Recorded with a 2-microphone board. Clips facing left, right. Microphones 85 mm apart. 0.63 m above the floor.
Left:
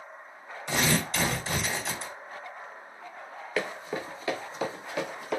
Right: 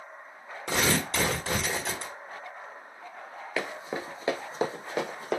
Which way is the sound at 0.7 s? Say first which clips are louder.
Even; 70° right (ahead or behind).